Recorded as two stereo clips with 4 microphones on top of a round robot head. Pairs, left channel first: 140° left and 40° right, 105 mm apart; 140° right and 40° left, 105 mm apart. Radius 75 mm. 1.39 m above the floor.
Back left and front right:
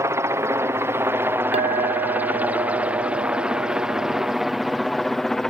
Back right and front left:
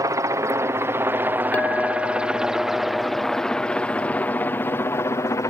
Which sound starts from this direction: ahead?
A helicopter, at 0.0 s.